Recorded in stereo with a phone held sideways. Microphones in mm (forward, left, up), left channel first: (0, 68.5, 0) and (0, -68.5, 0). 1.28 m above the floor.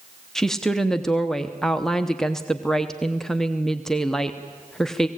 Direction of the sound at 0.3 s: 5° left (ahead or behind).